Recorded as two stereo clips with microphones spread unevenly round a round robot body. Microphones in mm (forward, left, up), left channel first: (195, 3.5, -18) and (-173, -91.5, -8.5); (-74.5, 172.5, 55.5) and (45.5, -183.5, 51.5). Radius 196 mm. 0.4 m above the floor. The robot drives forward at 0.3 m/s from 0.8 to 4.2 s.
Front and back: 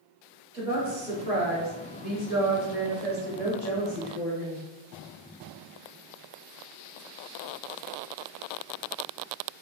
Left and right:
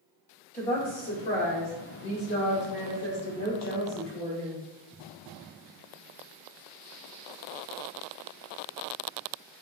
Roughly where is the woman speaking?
Behind left.